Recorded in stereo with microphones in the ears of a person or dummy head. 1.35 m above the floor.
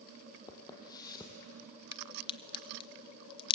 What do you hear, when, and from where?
0.5 s footsteps: 20° left (ahead or behind), 3 m
1.9 s a crack: 25° left (ahead or behind), 0.9 m